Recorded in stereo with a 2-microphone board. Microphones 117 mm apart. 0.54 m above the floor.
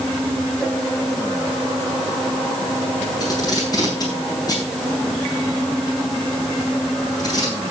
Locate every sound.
3.2 s tape being pulled: 35° left (ahead or behind), 8 m